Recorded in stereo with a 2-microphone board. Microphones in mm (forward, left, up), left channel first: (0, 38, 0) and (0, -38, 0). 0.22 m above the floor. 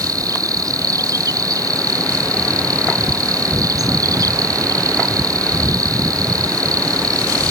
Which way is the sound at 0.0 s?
50° right (ahead or behind).